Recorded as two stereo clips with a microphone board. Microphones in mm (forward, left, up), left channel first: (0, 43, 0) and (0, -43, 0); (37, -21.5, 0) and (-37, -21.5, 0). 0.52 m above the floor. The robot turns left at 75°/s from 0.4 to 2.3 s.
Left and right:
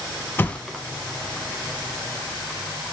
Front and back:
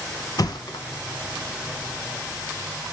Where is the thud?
25° left, 0.7 m; by 0.8 s 10° right, 0.7 m.